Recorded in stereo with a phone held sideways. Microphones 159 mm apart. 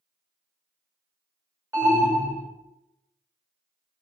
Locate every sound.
1.7 s an alarm: 20° right (ahead or behind), 2 m